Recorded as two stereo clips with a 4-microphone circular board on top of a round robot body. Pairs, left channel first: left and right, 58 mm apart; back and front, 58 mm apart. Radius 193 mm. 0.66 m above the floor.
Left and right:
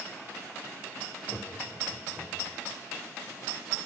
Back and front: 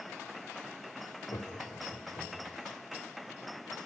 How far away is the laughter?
About 1.8 m.